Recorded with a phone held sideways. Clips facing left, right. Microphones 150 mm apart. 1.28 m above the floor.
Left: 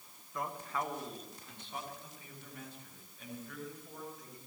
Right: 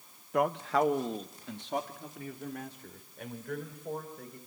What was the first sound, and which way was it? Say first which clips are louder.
A man speaking: right 11 dB; 70° right (ahead or behind).